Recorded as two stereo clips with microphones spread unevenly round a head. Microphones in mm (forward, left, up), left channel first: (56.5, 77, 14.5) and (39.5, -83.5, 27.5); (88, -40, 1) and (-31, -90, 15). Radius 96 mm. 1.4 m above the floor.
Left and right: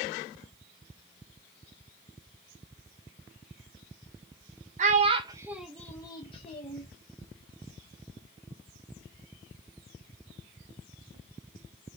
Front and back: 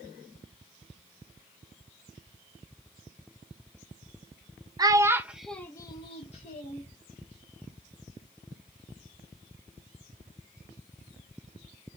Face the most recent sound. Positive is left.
turn(degrees=40)